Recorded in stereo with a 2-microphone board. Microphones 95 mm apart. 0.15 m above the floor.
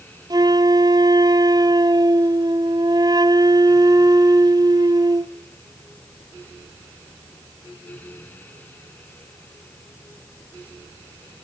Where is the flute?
45° right (ahead or behind), 0.9 m.